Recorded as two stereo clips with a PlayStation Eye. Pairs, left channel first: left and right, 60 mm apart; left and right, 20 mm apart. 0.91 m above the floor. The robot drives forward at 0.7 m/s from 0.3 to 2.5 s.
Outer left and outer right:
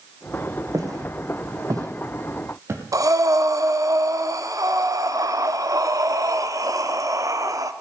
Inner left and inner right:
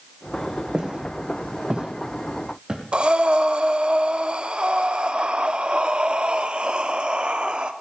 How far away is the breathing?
About 0.9 m.